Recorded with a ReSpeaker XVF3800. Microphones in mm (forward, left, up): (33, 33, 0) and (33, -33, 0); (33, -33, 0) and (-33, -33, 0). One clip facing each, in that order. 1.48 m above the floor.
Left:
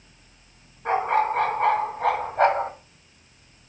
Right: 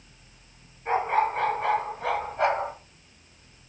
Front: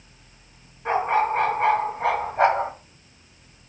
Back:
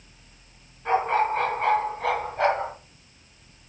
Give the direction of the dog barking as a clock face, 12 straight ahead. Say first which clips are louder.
Left 2 dB, front 1 dB; 10 o'clock.